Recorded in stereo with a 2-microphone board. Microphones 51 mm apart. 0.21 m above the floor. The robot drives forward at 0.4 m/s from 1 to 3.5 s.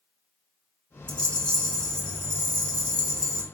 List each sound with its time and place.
1.1 s a rattle: 25° left (ahead or behind), 0.8 m; by 3.5 s 15° left (ahead or behind), 1.3 m